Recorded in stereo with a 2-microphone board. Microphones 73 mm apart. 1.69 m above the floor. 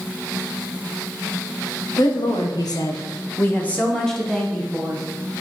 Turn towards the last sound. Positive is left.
turn(degrees=-15)  # may be behind; listen again after turning